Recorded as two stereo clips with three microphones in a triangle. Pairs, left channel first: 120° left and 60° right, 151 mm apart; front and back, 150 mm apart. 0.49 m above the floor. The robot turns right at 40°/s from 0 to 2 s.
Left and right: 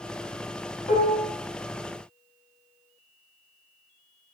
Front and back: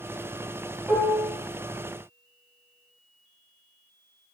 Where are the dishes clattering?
105° left, 1.3 m; by 1.3 s 120° left, 1.3 m.